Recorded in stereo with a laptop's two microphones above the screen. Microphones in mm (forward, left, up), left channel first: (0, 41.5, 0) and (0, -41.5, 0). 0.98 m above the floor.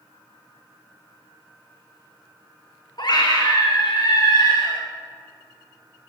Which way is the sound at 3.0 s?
55° left (ahead or behind).